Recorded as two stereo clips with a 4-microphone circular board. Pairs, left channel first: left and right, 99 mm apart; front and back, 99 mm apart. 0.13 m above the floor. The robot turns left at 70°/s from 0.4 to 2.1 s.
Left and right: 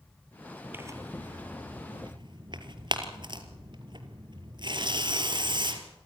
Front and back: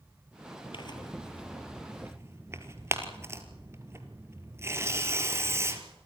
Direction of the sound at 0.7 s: 25° right.